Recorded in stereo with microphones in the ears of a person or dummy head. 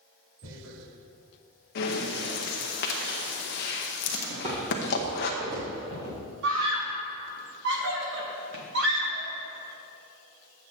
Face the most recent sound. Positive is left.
turn(degrees=-65)  # may be behind; listen again after turning